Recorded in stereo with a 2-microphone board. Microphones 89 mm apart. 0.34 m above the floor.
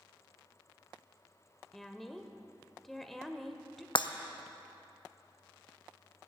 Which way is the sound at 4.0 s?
65° left (ahead or behind).